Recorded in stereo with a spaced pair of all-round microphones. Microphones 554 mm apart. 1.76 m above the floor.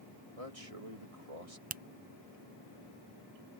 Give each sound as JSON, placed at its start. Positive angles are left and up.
{"t": 0.4, "sound": "a man speaking", "side_deg": -80}
{"t": 1.7, "sound": "a finger snap", "side_deg": -15}